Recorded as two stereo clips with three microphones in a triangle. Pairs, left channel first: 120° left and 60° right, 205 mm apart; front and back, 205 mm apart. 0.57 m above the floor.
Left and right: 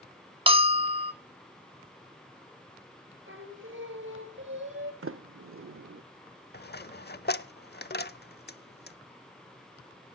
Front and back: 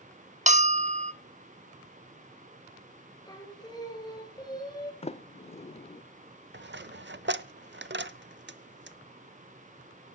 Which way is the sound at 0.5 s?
125° right.